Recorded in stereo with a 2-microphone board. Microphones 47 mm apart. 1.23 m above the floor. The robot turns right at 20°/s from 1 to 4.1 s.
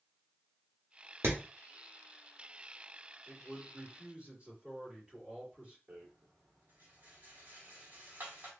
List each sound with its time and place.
1.2 s hammering: 70° right (ahead or behind), 1.6 m; by 1.4 s 65° right (ahead or behind), 1.6 m
3.3 s a man speaking: 40° right (ahead or behind), 3 m; by 5.8 s 25° right (ahead or behind), 3 m
5.9 s a rattle: 45° right (ahead or behind), 1.5 m